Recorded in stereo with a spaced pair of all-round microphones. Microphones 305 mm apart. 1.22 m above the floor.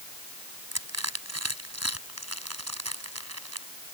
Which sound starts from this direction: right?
Crushing, at 0.7 s.